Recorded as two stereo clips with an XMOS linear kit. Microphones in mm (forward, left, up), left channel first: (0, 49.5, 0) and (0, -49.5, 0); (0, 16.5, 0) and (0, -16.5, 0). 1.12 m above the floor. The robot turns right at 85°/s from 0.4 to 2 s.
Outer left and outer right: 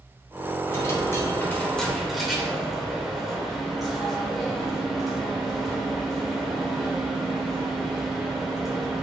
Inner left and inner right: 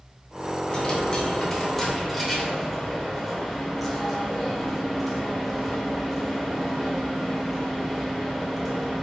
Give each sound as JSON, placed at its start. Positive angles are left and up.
{"t": 0.7, "sound": "a dropped coin", "side_deg": 25, "distance_m": 0.8}